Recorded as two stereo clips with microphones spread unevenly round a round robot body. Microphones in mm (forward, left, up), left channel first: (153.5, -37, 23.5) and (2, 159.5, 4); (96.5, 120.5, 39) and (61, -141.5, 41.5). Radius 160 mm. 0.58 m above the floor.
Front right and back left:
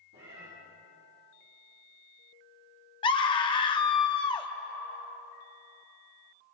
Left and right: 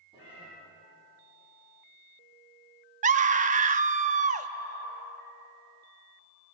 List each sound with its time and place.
0.1 s a cat meowing: 170° right, 7.5 m
3.0 s a scream: 110° right, 0.9 m